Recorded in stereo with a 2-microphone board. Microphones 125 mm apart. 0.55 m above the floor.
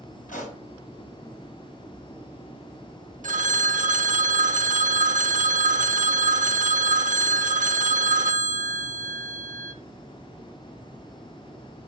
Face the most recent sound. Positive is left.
turn(degrees=-70)  # may be behind; listen again after turning